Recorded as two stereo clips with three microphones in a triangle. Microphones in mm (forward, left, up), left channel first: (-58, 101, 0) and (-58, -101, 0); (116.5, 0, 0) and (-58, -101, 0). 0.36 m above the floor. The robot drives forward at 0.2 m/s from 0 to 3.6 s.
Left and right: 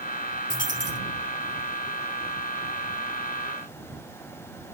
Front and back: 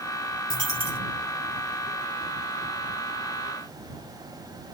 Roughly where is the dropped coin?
Behind.